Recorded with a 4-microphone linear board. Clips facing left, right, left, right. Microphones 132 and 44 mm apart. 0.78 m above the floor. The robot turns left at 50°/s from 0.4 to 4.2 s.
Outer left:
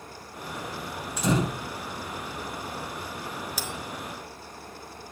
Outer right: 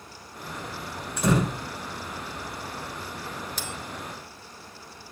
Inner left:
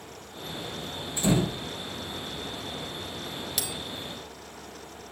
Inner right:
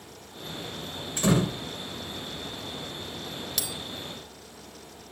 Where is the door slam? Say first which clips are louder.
Outer right 2 dB, inner right 1 dB; 55° right (ahead or behind), 7 m; by 1.6 s 75° right (ahead or behind), 7 m.